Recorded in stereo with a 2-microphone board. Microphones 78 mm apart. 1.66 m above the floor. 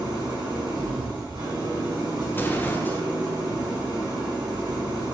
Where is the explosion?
25° left (ahead or behind), 0.7 m.